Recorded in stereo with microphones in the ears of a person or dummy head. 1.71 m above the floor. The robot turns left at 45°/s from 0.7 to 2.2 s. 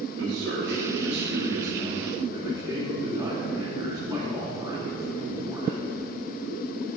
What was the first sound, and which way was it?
A man speaking, 95° right.